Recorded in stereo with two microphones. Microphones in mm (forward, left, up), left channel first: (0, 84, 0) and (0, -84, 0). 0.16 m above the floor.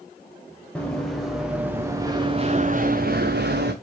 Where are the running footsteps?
5° left (ahead or behind), 2 m; by 3.7 s 85° right, 1.4 m.